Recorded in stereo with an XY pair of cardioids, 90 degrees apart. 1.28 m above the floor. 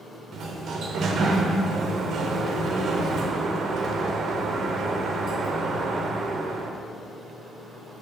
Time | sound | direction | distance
0.3 | a sliding door | 65° right | 0.7 m